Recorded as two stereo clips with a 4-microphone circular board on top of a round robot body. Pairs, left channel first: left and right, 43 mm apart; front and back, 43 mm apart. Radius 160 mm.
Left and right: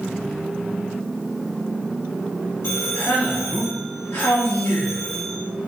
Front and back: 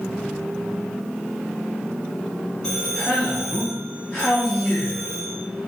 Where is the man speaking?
75° left, 0.7 m.